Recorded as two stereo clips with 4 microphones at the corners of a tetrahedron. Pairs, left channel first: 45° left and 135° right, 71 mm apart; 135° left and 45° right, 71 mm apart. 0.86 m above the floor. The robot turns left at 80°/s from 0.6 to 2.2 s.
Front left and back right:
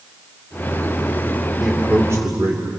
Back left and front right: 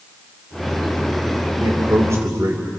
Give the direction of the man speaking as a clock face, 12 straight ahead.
2 o'clock.